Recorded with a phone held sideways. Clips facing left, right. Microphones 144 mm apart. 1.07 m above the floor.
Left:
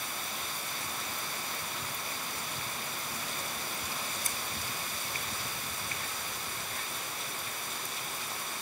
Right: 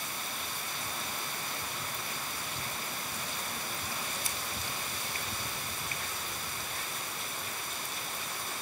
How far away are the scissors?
About 2 m.